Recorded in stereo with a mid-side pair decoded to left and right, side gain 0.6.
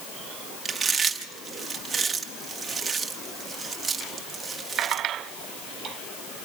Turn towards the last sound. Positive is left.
turn(degrees=-25)